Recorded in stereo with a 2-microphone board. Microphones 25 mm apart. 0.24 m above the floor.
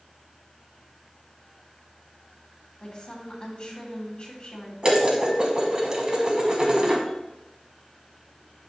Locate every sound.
2.8 s a woman speaking: 45° left (ahead or behind), 1.8 m
4.8 s dishes clattering: 30° right (ahead or behind), 1.2 m